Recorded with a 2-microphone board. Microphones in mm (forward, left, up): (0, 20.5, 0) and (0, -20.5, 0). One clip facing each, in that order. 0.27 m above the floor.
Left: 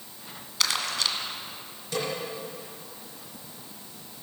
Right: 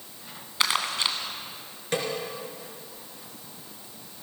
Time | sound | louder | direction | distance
0.6 | crumpling | right 2 dB | 25° right (ahead or behind) | 1.4 m
1.9 | a snare drum | right 2 dB | 50° right (ahead or behind) | 4 m